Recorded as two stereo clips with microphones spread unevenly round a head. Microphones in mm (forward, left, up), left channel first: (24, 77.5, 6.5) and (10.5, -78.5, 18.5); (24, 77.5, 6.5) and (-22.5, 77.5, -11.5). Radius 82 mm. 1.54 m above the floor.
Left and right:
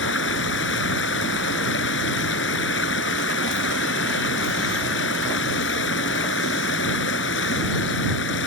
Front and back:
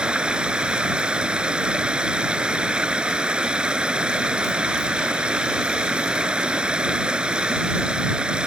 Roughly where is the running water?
Left.